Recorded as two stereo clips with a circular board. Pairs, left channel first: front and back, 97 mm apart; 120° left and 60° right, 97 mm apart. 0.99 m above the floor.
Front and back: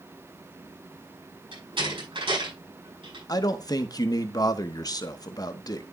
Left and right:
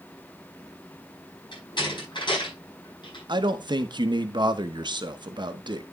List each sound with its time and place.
1.5 s a door slam: 155° left, 8 m
3.3 s a man speaking: 40° right, 1.0 m